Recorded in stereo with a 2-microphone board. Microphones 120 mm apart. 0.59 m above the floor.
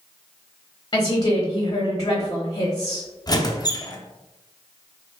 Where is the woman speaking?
35° left (ahead or behind), 0.9 m.